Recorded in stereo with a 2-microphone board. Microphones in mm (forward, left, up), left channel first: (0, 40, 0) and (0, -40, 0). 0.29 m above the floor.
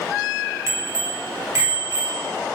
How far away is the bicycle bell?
About 4.5 m.